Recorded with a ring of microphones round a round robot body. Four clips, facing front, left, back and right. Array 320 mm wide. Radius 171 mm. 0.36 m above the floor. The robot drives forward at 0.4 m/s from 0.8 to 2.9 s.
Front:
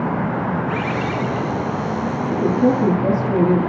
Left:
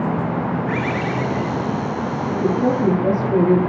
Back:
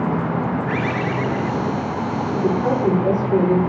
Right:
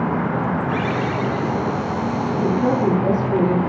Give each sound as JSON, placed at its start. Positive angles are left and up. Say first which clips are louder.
{"t": 0.7, "sound": "a bird", "louder": "even, even", "azimuth_deg": 105, "distance_m": 4.0}
{"t": 2.3, "sound": "a woman speaking", "louder": "left 1 dB, front 3 dB", "azimuth_deg": 40, "distance_m": 7.5}